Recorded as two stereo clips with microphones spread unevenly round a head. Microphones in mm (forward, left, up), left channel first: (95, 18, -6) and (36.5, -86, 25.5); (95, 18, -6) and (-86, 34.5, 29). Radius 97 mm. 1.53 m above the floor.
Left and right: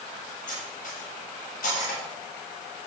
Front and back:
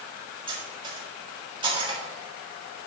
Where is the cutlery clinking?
110° left, 3.5 m.